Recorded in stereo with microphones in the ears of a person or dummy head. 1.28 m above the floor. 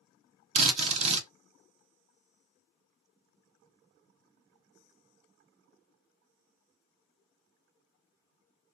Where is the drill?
30° right (ahead or behind), 0.6 m.